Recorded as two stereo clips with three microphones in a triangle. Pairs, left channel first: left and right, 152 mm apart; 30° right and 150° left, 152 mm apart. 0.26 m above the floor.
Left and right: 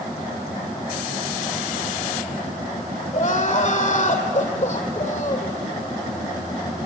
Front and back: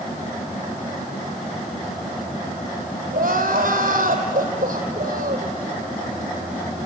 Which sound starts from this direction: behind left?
Crying, at 3.1 s.